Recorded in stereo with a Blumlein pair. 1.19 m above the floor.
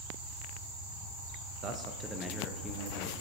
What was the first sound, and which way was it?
A man speaking, 30° right.